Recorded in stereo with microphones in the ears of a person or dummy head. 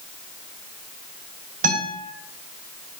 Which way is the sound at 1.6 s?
50° right (ahead or behind).